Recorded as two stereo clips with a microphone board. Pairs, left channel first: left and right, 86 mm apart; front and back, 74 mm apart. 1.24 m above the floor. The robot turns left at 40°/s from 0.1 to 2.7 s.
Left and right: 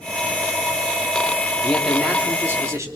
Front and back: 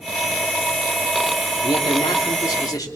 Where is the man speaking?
10° left, 3 m; by 2.9 s 35° right, 3 m.